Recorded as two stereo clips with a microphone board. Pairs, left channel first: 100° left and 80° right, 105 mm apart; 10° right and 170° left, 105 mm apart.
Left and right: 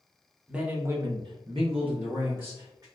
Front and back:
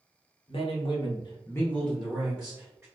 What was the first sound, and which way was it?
A man speaking, straight ahead.